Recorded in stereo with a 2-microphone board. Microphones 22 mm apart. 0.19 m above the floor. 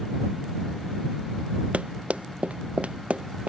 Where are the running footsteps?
85° right; by 3.5 s 70° right (ahead or behind).